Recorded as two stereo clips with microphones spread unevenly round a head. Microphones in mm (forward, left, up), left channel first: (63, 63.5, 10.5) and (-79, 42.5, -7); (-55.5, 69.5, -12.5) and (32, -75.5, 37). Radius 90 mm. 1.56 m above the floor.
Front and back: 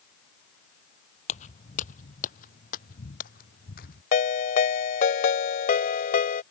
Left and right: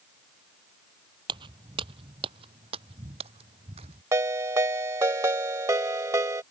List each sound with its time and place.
1.3 s footsteps: 15° right; by 4.0 s 10° right
4.1 s a ringtone: 5° left